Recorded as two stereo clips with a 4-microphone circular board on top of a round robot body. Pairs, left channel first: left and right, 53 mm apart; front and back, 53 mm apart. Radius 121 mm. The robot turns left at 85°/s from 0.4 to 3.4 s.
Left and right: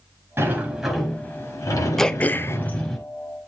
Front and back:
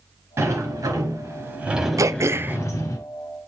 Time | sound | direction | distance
0.4 | a sliding door | 140° right | 3 m
2.0 | throat clearing | 170° left | 0.6 m